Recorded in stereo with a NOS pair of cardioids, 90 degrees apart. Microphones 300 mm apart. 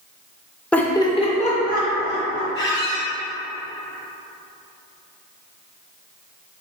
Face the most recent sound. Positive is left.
turn(degrees=40)